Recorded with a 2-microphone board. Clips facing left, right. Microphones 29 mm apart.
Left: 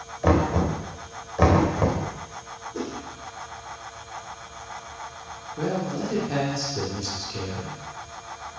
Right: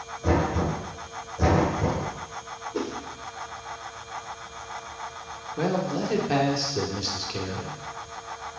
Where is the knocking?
70° left (ahead or behind), 3 m.